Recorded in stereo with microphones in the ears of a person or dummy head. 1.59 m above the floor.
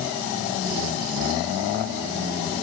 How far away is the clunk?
No clunk in this recording.